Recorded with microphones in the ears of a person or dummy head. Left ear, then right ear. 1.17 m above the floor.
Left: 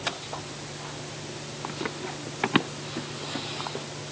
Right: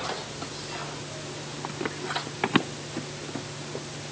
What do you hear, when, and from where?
1.6 s running footsteps: centre (ahead or behind); by 3.9 s 10° left (ahead or behind)